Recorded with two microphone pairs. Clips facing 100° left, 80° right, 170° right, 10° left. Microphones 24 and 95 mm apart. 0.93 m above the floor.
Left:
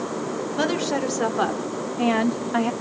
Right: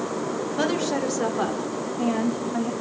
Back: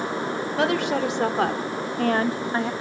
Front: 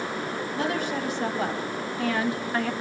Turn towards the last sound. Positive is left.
turn(degrees=120)